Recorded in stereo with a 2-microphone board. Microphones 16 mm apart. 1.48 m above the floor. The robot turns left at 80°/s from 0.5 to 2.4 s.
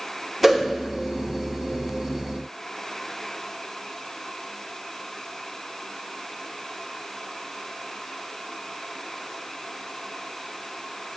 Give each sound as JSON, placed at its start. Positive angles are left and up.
{"t": 0.4, "sound": "a whoosh", "side_deg": -10, "distance_m": 0.7}